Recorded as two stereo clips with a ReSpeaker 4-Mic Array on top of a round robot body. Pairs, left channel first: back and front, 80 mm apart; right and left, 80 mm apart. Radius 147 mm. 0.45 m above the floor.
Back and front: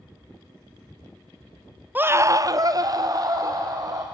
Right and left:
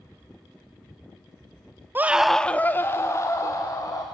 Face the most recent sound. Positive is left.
turn(degrees=-45)